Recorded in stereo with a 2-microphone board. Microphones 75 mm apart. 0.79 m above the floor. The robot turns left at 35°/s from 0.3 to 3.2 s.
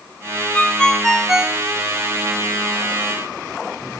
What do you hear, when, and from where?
0.5 s a ringtone: 20° left, 0.8 m; by 1.6 s 15° right, 0.8 m